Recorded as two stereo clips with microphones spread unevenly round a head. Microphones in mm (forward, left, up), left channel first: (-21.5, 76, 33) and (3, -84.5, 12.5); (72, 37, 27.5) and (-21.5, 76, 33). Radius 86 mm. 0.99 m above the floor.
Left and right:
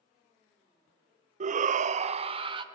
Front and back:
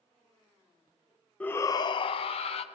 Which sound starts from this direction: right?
A shout, at 1.4 s.